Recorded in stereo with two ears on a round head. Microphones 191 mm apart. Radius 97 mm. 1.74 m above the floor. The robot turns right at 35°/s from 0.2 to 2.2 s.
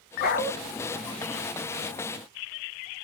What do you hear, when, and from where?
0.2 s a dog barking: 45° left (ahead or behind), 2 m; by 0.5 s 40° left (ahead or behind), 2 m